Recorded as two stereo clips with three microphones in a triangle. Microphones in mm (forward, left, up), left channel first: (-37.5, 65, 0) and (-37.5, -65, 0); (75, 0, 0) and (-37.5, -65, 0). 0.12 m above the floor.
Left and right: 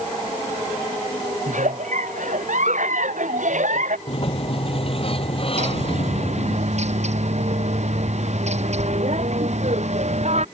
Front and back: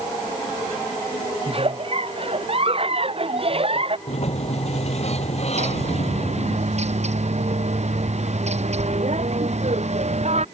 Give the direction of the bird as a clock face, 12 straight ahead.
4 o'clock.